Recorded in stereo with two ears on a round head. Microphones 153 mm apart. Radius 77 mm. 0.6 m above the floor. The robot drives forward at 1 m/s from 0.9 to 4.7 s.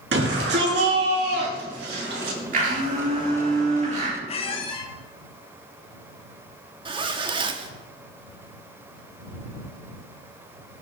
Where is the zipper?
30° right (ahead or behind), 1.4 m.